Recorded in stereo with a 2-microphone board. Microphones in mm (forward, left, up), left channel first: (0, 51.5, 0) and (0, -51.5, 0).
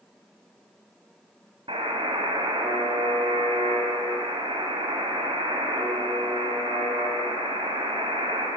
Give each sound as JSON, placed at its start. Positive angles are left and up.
{"t": 1.7, "sound": "a buzzer", "side_deg": -65, "distance_m": 2.0}